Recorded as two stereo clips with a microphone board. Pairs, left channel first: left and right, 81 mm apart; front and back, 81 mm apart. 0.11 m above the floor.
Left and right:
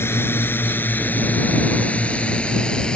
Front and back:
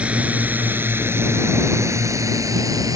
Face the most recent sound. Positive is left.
turn(degrees=165)